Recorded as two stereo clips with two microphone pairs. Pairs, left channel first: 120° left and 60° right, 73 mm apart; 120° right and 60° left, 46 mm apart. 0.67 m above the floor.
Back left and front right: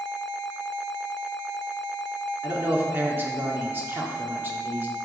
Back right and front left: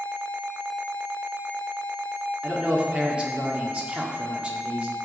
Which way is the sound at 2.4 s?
5° right.